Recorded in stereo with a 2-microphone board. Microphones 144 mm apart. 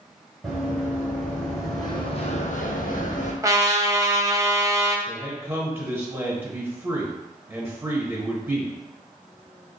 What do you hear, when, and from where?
0.4 s running footsteps: centre (ahead or behind), 1.9 m; by 3.3 s 60° left (ahead or behind), 1.0 m
3.4 s a trumpet: 25° right (ahead or behind), 0.5 m
5.1 s a man speaking: 15° right (ahead or behind), 1.0 m